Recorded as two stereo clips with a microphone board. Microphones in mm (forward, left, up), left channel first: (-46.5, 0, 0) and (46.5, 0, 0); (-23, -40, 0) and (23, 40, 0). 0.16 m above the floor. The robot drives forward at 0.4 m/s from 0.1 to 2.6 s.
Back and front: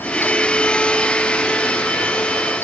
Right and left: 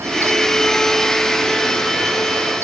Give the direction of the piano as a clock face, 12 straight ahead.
No piano in this recording.